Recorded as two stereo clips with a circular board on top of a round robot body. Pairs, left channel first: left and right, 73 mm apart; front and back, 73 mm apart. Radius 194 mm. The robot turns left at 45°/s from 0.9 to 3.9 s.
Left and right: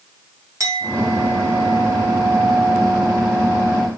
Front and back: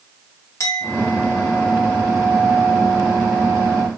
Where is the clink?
45° right, 1.9 m; by 3.9 s straight behind, 1.9 m.